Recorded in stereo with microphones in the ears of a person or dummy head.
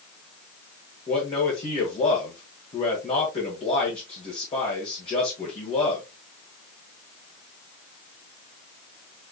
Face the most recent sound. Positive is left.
turn(degrees=30)  # may be behind; listen again after turning